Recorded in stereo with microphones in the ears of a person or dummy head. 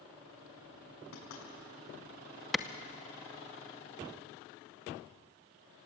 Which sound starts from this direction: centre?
A clap, at 2.5 s.